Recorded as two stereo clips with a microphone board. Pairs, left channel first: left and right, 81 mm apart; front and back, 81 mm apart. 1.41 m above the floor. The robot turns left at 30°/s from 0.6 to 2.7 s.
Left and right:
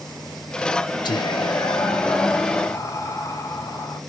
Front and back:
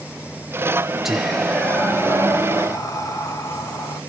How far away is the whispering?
About 0.6 m.